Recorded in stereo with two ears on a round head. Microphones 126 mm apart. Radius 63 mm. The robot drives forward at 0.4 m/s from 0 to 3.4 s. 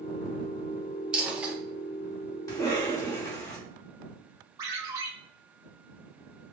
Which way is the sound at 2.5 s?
25° left (ahead or behind).